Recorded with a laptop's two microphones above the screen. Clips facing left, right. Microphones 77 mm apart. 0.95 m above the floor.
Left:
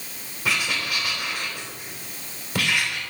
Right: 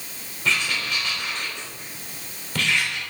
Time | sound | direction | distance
0.5 | writing | 10° left (ahead or behind) | 2.5 m